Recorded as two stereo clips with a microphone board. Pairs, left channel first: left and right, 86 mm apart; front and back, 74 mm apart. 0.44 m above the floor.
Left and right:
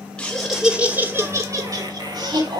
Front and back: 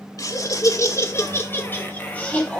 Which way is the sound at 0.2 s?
10° left.